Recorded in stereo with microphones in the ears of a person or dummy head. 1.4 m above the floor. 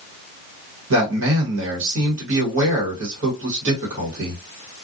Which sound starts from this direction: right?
A man speaking, at 0.9 s.